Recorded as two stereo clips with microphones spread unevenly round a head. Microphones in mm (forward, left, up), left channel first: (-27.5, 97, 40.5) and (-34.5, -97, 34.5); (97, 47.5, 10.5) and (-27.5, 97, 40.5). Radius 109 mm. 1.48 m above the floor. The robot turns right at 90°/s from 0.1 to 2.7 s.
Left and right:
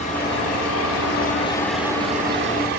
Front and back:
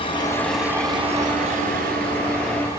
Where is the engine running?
30° left, 7.5 m; by 2.8 s 95° right, 7.5 m.